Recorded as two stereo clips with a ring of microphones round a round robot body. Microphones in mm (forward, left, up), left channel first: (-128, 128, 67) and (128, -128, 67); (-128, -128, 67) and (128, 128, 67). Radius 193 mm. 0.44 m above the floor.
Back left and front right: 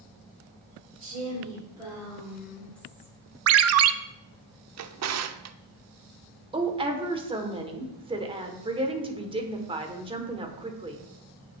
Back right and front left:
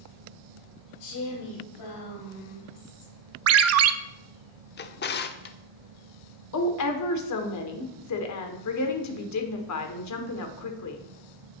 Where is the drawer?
80° right, 0.7 m.